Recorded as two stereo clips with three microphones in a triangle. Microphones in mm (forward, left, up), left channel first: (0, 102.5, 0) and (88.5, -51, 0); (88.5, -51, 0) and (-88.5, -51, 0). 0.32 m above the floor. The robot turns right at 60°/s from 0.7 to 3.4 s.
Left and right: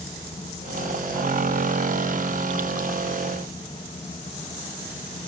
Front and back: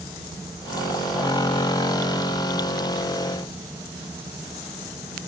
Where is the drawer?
I don't hear a drawer.